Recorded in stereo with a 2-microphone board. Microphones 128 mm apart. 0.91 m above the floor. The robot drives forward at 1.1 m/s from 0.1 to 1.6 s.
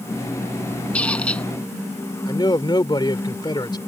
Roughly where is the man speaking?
Left.